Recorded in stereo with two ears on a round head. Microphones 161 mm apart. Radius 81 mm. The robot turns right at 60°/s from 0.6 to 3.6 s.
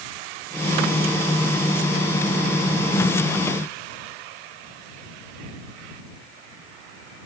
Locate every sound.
Only background noise.